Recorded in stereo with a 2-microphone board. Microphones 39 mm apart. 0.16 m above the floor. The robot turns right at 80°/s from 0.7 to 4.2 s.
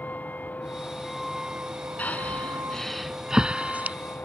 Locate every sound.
0.0 s a vehicle: 135° left; by 4.2 s 55° left
2.0 s breathing: 45° left (ahead or behind); by 4.0 s 40° right (ahead or behind)